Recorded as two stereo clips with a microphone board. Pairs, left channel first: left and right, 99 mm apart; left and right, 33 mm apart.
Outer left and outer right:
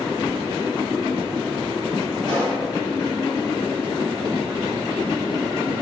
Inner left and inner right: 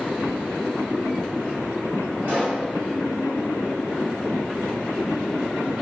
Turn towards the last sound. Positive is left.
turn(degrees=-50)  # may be behind; listen again after turning